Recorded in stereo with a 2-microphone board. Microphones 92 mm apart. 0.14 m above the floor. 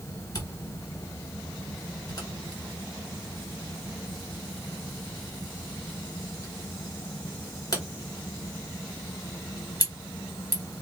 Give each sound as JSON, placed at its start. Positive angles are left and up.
{"t": 0.3, "sound": "a camera shutter", "side_deg": 40, "distance_m": 1.3}